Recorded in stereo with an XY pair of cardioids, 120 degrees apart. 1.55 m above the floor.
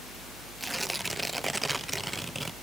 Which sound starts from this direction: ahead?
Tearing paper, at 0.6 s.